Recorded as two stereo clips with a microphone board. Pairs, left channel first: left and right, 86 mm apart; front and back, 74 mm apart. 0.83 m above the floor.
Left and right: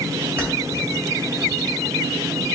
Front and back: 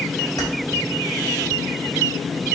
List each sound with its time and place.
0.4 s keys jangling: 25° right, 2.5 m